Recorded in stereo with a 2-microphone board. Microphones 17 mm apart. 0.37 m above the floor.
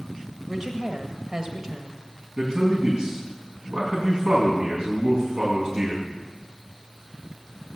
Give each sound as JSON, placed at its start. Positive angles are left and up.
{"t": 0.5, "sound": "a woman speaking", "side_deg": -40, "distance_m": 1.6}
{"t": 2.4, "sound": "a man speaking", "side_deg": -65, "distance_m": 4.0}